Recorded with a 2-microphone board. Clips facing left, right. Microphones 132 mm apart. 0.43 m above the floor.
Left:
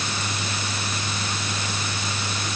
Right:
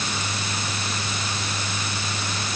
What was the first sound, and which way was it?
Only background noise.